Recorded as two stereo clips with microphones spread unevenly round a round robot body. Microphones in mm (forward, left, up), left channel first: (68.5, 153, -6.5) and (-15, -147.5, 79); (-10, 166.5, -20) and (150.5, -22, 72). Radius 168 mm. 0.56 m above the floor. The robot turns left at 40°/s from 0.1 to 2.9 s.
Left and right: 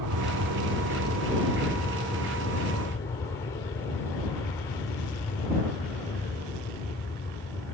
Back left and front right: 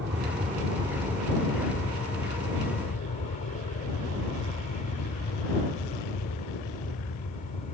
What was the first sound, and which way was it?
An aircraft, 110° right.